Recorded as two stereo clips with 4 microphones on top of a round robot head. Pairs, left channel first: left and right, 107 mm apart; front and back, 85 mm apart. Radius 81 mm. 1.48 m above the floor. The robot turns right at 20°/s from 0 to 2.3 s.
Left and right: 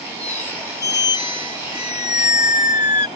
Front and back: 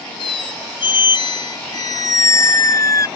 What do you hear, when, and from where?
0.2 s a squeak: 5° left; by 3.1 s 50° left